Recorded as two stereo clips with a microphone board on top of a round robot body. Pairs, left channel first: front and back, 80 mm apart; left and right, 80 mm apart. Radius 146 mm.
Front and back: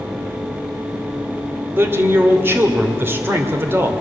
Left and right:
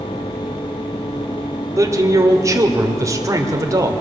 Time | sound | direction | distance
1.8 | a man speaking | 125° right | 2 m